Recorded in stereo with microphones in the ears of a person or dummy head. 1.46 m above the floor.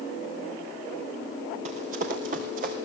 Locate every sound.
1.6 s running footsteps: 45° right (ahead or behind), 3.5 m; by 2.8 s 55° right (ahead or behind), 3.5 m